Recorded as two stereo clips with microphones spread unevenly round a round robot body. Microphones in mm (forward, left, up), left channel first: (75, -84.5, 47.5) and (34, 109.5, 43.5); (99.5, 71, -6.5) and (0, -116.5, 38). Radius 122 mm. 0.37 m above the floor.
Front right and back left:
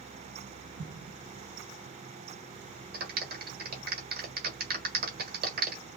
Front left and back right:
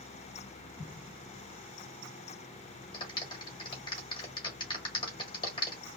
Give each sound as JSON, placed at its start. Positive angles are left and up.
{"t": 0.8, "sound": "an explosion", "azimuth_deg": 110, "distance_m": 1.2}
{"t": 2.9, "sound": "a clap", "azimuth_deg": 115, "distance_m": 1.4}